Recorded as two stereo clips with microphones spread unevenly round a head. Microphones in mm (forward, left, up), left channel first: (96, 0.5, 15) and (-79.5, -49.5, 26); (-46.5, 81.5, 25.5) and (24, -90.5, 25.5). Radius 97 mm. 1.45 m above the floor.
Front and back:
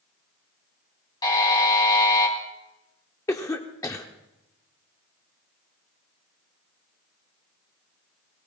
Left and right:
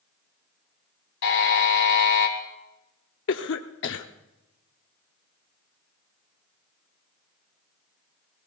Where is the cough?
90° left, 0.8 m.